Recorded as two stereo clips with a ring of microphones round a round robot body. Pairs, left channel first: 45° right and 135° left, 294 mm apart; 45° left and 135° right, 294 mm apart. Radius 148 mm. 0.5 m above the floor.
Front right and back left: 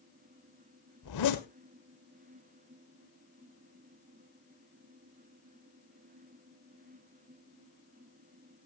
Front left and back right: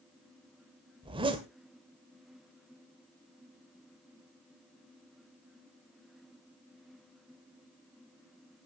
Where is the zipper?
65° right, 1.9 m.